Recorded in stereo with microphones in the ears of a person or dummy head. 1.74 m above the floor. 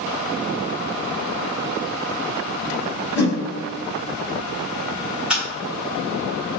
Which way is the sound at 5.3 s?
5° right (ahead or behind).